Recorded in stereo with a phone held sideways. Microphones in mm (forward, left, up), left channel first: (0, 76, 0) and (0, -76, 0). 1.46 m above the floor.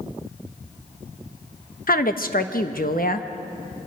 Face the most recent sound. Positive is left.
turn(degrees=70)  # may be behind; listen again after turning